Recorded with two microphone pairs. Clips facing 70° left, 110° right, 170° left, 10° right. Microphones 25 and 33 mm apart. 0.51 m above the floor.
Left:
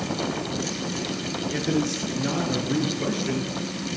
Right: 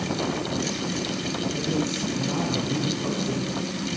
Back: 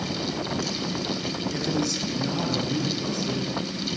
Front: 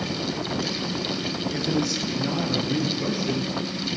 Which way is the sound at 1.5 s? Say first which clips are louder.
Left 4 dB, front 2 dB; 75° left.